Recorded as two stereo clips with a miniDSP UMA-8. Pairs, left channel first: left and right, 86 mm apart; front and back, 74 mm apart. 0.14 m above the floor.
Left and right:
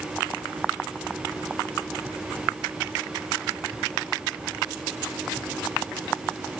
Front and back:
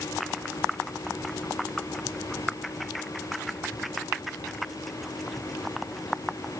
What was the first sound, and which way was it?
Only background noise.